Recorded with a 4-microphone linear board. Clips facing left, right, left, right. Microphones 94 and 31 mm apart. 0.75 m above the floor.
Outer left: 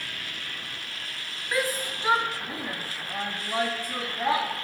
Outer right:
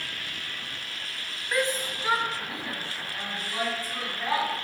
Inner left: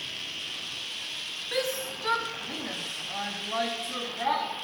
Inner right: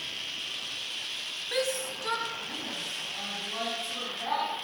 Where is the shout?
Centre (ahead or behind), 0.8 m; by 4.4 s 65° left (ahead or behind), 1.6 m.